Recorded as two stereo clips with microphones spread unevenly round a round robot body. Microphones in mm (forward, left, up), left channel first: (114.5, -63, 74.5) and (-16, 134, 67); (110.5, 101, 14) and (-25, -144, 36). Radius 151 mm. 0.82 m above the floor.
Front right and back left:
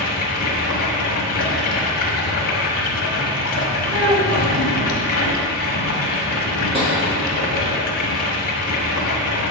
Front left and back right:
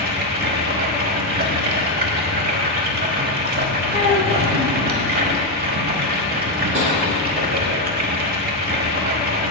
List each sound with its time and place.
0.0 s running water: 75° right, 0.9 m
3.9 s a child speaking: 85° left, 1.7 m
6.7 s tapping: 170° right, 2.0 m